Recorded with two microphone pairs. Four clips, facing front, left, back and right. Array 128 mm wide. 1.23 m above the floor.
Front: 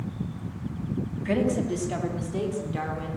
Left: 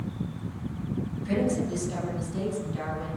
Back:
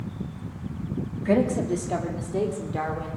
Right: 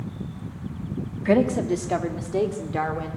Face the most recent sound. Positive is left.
turn(degrees=-105)